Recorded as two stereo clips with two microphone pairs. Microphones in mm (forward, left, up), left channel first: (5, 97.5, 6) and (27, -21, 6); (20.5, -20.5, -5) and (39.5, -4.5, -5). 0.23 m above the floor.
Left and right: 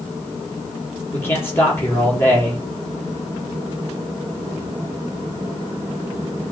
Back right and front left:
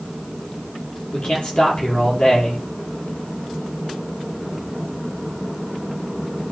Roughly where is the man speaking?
Behind.